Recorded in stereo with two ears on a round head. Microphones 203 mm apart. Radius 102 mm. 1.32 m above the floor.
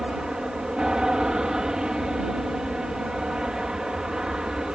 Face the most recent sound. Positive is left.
turn(degrees=-5)  # may be behind; listen again after turning